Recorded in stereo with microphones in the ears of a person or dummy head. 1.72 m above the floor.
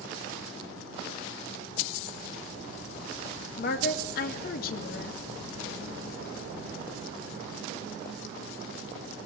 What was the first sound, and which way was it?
A woman speaking, 65° left (ahead or behind).